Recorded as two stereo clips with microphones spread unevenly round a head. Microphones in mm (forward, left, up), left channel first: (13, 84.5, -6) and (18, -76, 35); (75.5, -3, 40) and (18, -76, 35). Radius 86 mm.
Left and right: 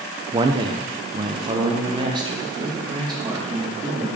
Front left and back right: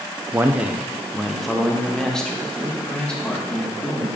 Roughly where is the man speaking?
Ahead right.